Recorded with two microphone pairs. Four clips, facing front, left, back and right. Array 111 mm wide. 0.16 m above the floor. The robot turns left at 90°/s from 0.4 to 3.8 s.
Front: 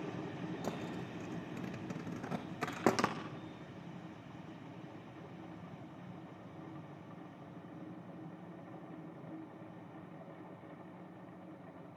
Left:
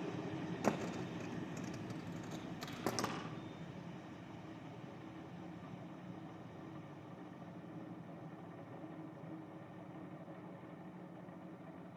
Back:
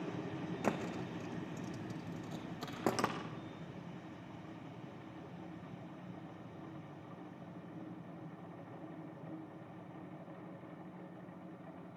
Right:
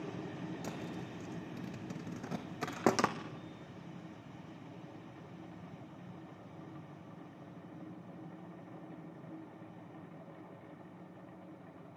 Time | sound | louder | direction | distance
0.6 | a thud | left 5 dB, back 4 dB | 110° left | 2.5 m